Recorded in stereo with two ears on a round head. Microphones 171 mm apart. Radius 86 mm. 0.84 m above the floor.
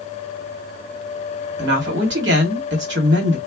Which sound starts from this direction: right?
A woman speaking, at 1.6 s.